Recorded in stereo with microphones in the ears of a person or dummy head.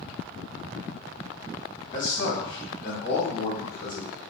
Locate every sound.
1.9 s a man speaking: 50° left (ahead or behind), 0.9 m; by 4.1 s 45° left (ahead or behind), 1.3 m